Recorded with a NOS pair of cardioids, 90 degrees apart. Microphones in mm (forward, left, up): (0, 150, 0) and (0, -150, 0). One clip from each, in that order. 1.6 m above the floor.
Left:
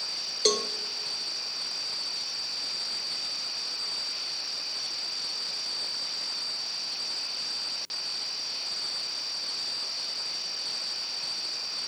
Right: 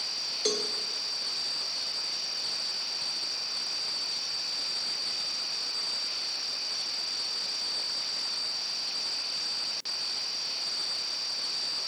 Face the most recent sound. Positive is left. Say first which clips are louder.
# left 5 dB
turn(degrees=30)